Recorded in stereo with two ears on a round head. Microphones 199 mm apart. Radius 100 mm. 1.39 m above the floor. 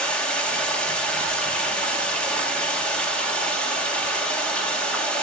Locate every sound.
0.0 s running water: 5° left (ahead or behind), 2 m